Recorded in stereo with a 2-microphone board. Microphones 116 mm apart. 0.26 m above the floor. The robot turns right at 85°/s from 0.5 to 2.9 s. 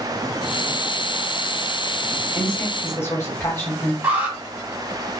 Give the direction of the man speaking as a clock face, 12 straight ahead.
12 o'clock.